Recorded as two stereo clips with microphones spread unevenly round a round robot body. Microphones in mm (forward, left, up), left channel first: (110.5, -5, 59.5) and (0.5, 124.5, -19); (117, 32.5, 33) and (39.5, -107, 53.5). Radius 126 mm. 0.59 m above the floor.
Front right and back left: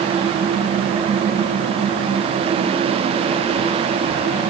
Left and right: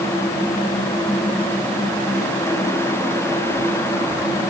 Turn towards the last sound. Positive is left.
No sound to turn to.